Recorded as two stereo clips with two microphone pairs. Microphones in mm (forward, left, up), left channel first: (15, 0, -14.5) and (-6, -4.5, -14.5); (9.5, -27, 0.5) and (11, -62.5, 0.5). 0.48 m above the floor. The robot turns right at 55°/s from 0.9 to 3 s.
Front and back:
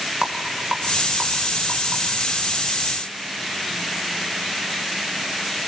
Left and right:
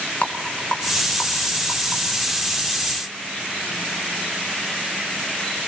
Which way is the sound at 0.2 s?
145° left.